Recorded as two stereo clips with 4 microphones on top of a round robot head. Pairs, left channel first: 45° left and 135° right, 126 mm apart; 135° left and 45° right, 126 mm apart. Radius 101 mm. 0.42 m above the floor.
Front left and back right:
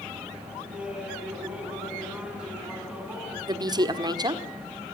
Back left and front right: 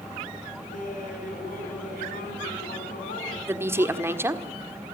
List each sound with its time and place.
0.7 s laughter: 140° left, 5.5 m
3.5 s a woman speaking: 105° right, 1.7 m